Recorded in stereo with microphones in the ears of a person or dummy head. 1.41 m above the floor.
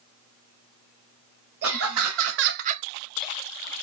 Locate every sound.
1.6 s laughter: 75° right (ahead or behind), 1.1 m; by 3.7 s 20° left (ahead or behind), 1.0 m